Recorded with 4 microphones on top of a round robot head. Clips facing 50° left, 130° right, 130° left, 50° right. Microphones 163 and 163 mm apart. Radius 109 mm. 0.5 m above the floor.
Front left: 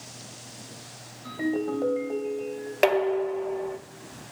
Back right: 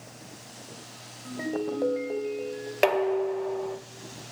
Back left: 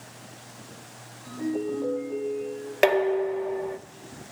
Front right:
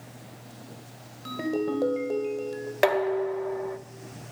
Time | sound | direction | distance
1.2 | a ringtone | 65° right | 1.1 m
2.8 | dishes clattering | 140° left | 0.6 m